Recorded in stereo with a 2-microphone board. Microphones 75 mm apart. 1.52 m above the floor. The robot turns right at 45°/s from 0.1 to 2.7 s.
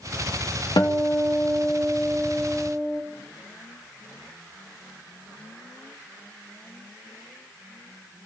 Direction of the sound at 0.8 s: 90° left.